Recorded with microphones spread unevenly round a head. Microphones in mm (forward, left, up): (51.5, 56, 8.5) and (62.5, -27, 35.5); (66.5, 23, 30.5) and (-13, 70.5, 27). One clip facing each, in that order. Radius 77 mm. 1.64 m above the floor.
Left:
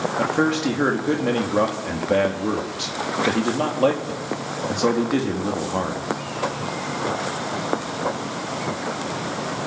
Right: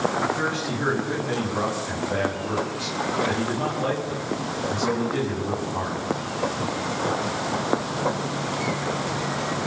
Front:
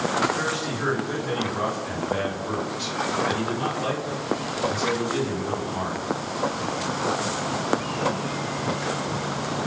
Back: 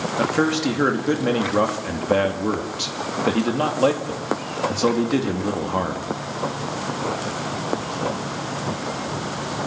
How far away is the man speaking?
About 3.5 m.